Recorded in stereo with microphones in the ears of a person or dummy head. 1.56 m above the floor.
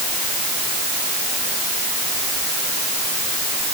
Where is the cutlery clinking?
I don't hear cutlery clinking.